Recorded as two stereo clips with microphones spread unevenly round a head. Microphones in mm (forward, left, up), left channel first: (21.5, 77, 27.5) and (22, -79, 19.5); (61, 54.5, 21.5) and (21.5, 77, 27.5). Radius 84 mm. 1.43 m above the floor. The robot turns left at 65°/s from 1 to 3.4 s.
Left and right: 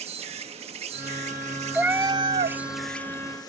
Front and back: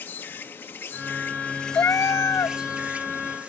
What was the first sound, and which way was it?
An insect, 65° right.